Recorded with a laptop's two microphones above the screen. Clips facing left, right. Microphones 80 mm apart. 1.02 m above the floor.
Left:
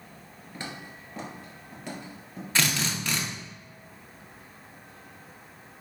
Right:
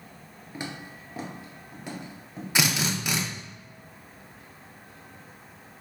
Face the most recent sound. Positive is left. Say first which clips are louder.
# right 2 dB
turn(degrees=-15)  # may be behind; listen again after turning